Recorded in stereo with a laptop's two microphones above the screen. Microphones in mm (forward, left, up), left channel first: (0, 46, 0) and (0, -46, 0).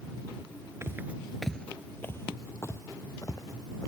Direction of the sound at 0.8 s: 30° right (ahead or behind).